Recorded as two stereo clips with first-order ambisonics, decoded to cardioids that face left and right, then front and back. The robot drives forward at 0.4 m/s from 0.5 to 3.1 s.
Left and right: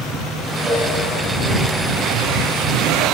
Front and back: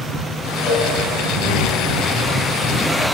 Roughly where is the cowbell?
Ahead right.